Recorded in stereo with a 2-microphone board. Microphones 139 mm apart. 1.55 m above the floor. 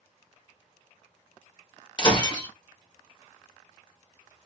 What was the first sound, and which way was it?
Breaking glass, 35° left (ahead or behind).